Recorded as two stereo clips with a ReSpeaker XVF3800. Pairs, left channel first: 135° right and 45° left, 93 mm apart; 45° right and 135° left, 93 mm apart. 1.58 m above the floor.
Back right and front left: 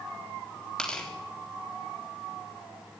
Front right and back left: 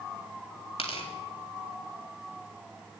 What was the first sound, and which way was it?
Tearing paper, 55° right.